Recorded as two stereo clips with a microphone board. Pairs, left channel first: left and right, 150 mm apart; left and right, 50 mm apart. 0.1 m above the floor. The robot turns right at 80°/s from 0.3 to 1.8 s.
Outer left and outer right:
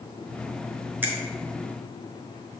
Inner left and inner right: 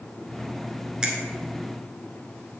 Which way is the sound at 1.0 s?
15° right (ahead or behind).